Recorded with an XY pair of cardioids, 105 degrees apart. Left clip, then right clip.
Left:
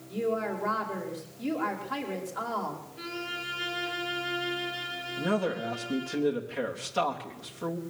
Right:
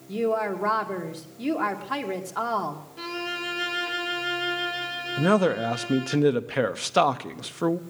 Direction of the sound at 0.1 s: 65° right.